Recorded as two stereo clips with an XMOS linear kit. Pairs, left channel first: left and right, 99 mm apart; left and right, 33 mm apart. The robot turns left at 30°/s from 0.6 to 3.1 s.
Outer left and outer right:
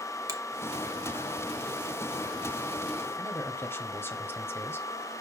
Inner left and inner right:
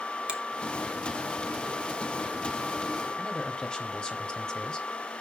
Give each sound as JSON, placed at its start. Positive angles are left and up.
{"t": 0.3, "sound": "a finger snap", "side_deg": -35, "distance_m": 1.5}
{"t": 3.2, "sound": "a man speaking", "side_deg": 20, "distance_m": 1.1}